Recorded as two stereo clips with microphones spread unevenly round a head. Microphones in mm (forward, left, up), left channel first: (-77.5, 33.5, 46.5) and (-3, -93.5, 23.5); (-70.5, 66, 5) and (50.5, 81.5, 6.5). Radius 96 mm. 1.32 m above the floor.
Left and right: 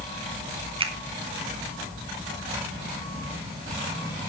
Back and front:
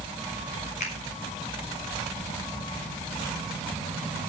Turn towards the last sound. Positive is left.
turn(degrees=-115)